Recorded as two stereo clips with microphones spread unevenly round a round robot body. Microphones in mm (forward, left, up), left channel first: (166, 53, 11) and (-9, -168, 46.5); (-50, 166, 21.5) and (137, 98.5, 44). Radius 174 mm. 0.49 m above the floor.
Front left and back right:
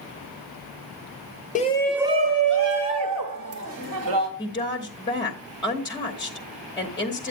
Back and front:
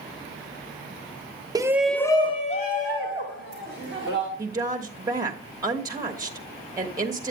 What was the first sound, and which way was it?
A shout, 50° left.